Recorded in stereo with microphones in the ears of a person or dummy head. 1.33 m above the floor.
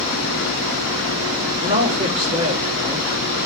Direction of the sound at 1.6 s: 40° right (ahead or behind).